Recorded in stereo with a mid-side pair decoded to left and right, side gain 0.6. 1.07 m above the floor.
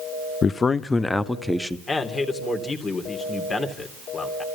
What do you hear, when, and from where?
0.4 s a man speaking: 35° left, 0.8 m; by 1.8 s 5° left, 1.5 m
1.9 s a man speaking: 30° left, 3 m